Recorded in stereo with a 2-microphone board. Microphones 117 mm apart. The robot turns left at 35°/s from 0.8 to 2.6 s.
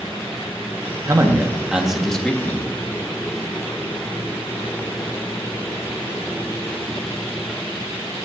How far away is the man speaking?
About 1.3 m.